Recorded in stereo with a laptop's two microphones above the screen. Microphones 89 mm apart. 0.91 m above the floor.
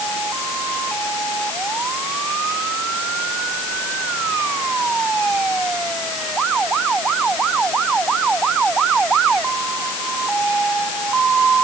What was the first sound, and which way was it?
Only background noise.